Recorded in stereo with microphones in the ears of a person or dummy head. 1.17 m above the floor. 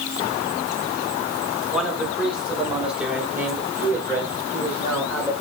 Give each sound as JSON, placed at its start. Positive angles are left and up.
{"t": 1.7, "sound": "a man speaking", "side_deg": 0, "distance_m": 2.5}